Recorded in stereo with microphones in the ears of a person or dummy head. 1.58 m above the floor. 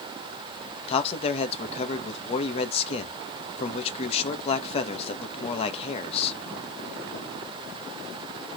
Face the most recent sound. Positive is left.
turn(degrees=35)  # may be behind; listen again after turning